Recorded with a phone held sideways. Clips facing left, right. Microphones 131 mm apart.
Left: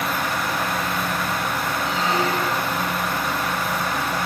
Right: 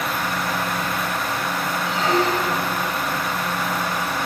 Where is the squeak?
70° right (ahead or behind), 1.3 m.